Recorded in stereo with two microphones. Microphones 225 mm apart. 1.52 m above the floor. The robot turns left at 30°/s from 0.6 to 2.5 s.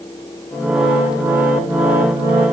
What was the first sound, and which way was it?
Only background noise.